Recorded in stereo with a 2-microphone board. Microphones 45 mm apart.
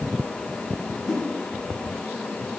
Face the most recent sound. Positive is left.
turn(degrees=5)  # may be behind; listen again after turning